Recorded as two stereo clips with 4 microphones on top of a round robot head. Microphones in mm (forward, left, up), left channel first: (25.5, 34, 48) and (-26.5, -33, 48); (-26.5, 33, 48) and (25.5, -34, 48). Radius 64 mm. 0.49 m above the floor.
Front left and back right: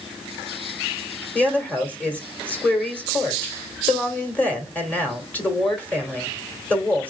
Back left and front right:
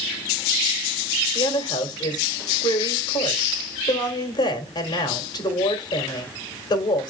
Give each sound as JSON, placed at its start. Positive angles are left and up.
{"t": 1.4, "sound": "a woman speaking", "azimuth_deg": 120, "distance_m": 2.0}